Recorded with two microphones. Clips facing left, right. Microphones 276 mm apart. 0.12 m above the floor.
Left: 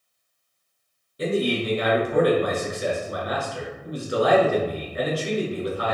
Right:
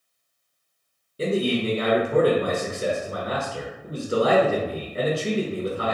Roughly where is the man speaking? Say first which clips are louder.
Right 1 dB; right.